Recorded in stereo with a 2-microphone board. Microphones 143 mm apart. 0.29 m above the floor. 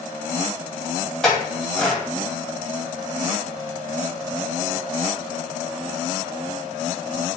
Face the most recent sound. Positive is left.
turn(degrees=5)  # may be behind; listen again after turning